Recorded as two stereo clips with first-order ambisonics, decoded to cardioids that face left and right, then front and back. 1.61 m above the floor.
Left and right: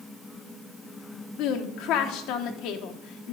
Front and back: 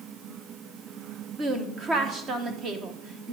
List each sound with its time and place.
1.4 s a woman speaking: 120° left, 1.1 m